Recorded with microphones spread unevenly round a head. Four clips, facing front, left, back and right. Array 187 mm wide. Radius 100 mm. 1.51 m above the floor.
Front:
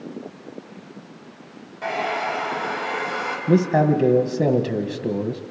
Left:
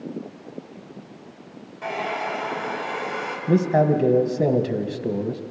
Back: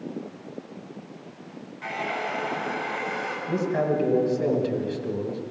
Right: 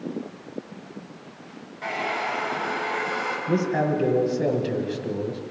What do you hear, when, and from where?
1.8 s a hair dryer: 5° right, 5 m
3.5 s a man speaking: 20° left, 1.8 m